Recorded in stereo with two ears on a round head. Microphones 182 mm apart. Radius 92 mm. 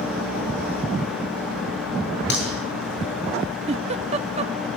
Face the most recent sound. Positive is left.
turn(degrees=-30)  # may be behind; listen again after turning